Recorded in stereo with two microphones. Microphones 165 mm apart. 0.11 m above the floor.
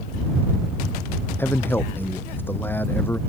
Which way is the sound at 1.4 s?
10° left (ahead or behind).